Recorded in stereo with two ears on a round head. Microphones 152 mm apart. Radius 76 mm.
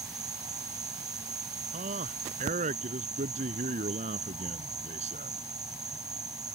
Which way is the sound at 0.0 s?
20° right (ahead or behind).